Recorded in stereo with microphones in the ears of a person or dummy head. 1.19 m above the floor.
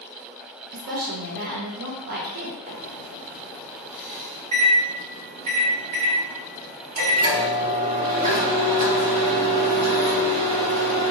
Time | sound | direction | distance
0.7 | a woman speaking | 50° right (ahead or behind) | 0.8 m
2.7 | a microwave | 45° right (ahead or behind) | 1.3 m